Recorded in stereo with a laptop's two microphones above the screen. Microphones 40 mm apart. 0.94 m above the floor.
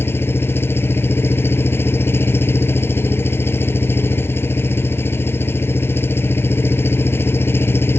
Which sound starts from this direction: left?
An engine running, at 0.0 s.